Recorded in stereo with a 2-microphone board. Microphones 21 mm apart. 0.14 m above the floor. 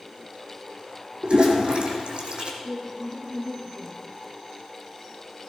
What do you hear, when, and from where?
1.2 s a toilet flushing: 50° right (ahead or behind), 3 m
2.6 s a woman speaking: 55° right (ahead or behind), 6 m